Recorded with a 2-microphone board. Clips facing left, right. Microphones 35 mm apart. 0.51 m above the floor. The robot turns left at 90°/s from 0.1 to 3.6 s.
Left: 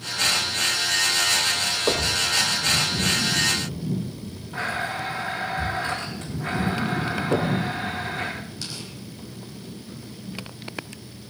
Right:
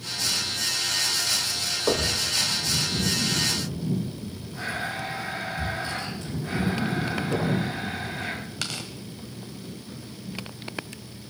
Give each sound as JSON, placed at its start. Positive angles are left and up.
{"t": 1.9, "sound": "knocking", "side_deg": 10, "distance_m": 1.7}
{"t": 4.5, "sound": "a blender", "side_deg": 50, "distance_m": 10.0}
{"t": 7.3, "sound": "knocking", "side_deg": 40, "distance_m": 3.5}
{"t": 8.6, "sound": "tearing paper", "side_deg": -70, "distance_m": 1.6}